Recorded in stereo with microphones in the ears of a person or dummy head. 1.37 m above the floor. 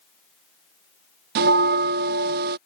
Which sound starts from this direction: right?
A bell, at 1.4 s.